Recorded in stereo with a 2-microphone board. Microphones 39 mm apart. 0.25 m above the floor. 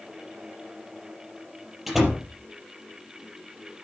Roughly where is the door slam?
Centre.